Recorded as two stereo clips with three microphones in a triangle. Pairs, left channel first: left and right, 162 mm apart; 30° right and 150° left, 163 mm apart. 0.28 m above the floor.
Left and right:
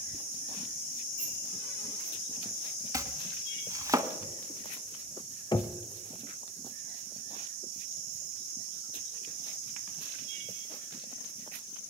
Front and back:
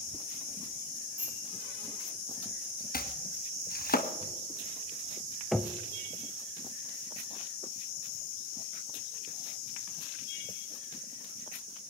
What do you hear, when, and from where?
1.2 s a bicycle bell: 75° left, 10 m
2.9 s chopping: 20° right, 1.1 m
5.5 s knocking: 60° left, 0.8 m